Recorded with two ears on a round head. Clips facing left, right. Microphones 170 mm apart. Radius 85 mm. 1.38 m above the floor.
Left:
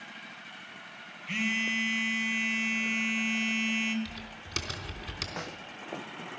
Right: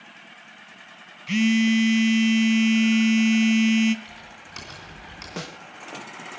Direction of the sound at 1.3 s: 50° right (ahead or behind).